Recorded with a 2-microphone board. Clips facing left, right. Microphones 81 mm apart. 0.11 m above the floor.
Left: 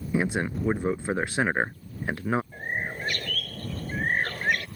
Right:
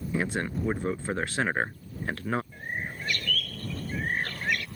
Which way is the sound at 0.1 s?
15° left (ahead or behind).